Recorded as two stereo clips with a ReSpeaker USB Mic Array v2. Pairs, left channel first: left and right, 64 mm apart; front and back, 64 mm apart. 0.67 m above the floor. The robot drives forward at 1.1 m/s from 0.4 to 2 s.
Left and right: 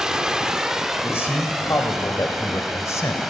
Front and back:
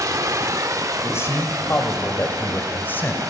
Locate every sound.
0.0 s running water: 170° right, 1.2 m; by 3.3 s 175° right, 3 m
1.0 s a man speaking: 40° left, 3.5 m; by 3.2 s 55° left, 2.5 m